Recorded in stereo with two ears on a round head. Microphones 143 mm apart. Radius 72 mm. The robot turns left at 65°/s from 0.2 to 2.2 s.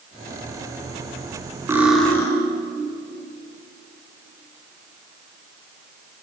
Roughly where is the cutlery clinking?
Behind.